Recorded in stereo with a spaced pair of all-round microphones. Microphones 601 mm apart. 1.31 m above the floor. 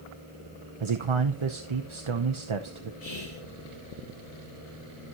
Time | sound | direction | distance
0.8 | a man speaking | 50° right (ahead or behind) | 0.7 m
3.0 | whispering | 65° left (ahead or behind) | 2.5 m